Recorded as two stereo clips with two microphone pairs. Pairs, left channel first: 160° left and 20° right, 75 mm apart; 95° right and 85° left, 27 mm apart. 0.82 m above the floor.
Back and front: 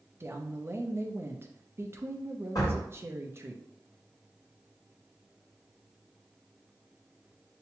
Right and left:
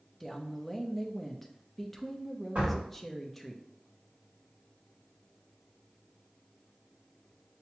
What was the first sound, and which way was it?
A woman speaking, 20° right.